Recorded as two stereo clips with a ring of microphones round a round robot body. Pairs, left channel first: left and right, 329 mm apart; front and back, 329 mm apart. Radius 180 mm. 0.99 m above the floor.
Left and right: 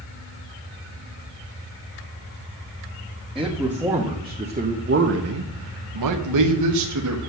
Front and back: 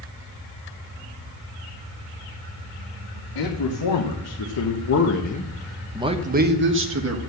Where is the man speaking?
5° right, 1.9 m; by 7.2 s 135° right, 1.7 m.